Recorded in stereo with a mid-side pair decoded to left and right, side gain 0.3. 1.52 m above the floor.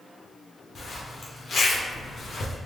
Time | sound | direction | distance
0.8 | a zipper | 60° left | 0.8 m